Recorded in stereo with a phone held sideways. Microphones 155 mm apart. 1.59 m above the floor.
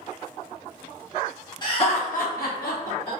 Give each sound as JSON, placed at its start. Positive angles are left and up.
{"t": 1.6, "sound": "laughter", "side_deg": 30, "distance_m": 1.0}